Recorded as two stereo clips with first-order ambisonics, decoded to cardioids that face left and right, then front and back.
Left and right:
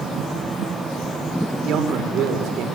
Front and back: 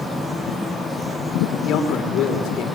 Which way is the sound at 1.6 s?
45° right.